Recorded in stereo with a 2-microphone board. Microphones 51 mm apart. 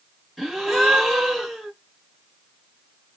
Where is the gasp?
5° left (ahead or behind), 1.0 m.